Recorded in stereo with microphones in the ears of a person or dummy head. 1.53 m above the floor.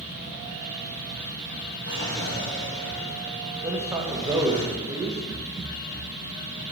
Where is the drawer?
70° left (ahead or behind), 4.5 m.